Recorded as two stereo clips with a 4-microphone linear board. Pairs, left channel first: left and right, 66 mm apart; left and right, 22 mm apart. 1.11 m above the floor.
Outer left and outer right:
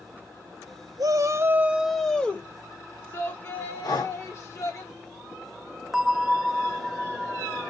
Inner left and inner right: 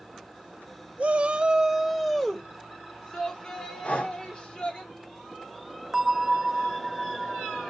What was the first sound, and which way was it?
A shout, 60° right (ahead or behind).